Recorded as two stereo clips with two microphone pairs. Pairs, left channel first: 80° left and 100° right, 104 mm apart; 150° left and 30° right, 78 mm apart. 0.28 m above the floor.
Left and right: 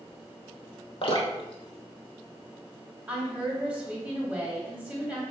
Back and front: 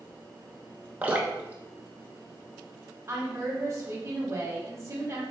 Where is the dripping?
45° left, 0.6 m.